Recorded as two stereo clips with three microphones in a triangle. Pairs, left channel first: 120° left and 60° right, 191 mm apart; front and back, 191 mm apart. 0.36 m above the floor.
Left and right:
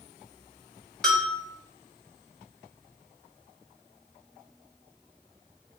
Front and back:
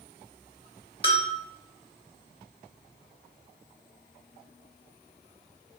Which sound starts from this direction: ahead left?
A bell, at 1.0 s.